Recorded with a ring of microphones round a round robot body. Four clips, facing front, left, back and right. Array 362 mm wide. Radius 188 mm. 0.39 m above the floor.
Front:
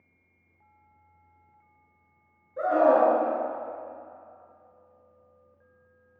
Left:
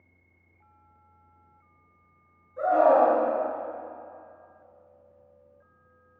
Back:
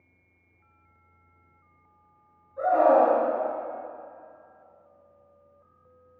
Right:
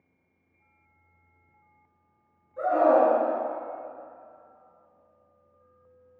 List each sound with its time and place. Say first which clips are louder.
2.6 s a scream: left 1 dB, back 1 dB; 5° right, 5 m